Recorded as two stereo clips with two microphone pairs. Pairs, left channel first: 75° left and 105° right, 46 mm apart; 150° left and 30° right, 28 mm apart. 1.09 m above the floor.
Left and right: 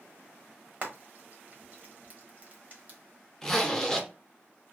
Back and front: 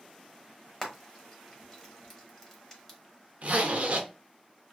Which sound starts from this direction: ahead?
A zipper, at 3.4 s.